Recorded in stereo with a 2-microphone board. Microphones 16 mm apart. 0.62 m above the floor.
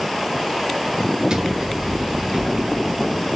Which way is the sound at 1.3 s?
65° right (ahead or behind).